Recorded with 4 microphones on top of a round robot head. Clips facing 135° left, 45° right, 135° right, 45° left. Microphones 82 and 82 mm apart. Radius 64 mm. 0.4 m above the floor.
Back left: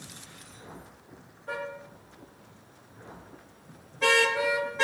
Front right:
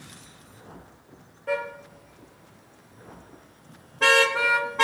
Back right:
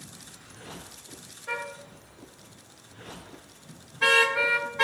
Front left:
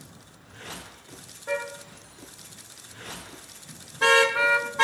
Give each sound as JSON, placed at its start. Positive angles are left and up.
{"t": 1.5, "sound": "a car horn", "azimuth_deg": -20, "distance_m": 5.0}